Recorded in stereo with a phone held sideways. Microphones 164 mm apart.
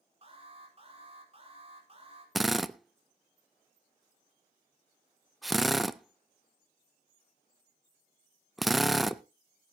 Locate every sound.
0.2 s an alarm: 35° right (ahead or behind), 4.5 m
2.4 s a drill: centre (ahead or behind), 0.6 m